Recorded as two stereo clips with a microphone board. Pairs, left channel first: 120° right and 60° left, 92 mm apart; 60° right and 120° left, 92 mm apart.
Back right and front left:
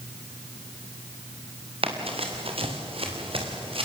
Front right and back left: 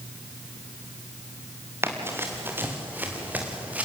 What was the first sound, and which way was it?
Running footsteps, 55° left.